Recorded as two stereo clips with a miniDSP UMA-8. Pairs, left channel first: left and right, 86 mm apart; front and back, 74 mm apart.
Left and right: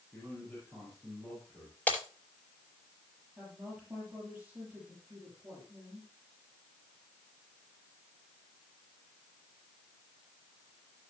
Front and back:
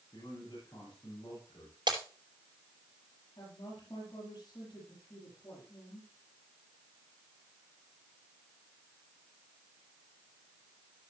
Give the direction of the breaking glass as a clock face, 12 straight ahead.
7 o'clock.